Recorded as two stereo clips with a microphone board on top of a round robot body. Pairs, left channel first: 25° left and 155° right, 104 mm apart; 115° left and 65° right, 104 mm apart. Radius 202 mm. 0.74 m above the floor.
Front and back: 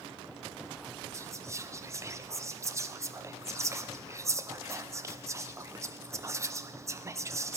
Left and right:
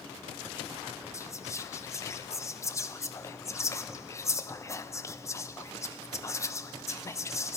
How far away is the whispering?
About 0.6 m.